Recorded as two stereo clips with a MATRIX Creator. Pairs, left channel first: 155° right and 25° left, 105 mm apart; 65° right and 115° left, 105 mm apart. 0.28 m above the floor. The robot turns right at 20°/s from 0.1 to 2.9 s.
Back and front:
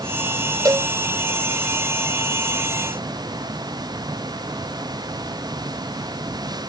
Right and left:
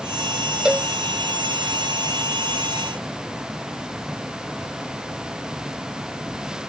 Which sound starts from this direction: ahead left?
A cowbell, at 0.7 s.